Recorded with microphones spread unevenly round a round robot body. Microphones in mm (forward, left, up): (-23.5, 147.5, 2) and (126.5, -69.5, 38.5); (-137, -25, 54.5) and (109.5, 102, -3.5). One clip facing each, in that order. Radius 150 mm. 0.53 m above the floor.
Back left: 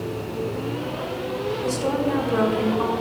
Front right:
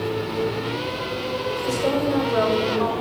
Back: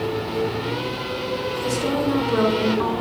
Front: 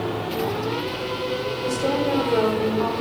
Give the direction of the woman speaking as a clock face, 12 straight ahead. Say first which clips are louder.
Front right 2 dB, back 1 dB; 7 o'clock.